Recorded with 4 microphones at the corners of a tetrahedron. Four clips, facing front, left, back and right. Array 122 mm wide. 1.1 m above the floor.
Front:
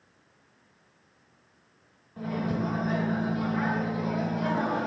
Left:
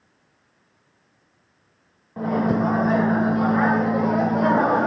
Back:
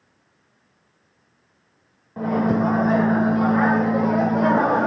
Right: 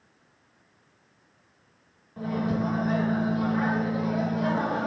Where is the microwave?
135° left, 0.7 m.